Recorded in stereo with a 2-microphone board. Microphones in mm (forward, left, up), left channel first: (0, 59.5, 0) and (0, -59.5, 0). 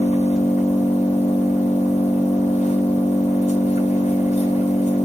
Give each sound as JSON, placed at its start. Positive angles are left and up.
{"t": 0.0, "sound": "an engine running", "side_deg": 75, "distance_m": 1.7}